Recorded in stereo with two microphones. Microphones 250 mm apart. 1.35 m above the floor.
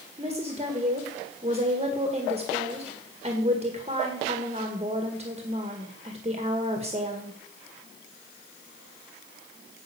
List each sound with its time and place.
0.2 s a woman speaking: 25° right (ahead or behind), 1.8 m